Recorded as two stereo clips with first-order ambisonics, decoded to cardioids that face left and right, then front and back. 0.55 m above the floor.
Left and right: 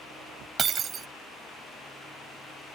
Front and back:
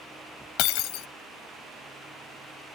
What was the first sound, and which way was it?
Breaking glass, 25° right.